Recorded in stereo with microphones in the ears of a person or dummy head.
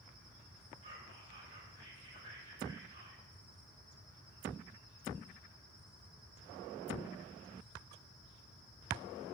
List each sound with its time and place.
0.8 s whispering: 40° right (ahead or behind), 6 m